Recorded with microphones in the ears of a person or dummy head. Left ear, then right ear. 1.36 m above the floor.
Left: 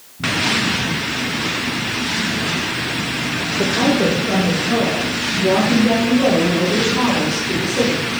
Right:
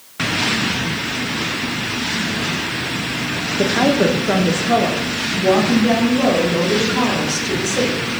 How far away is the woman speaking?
About 0.9 m.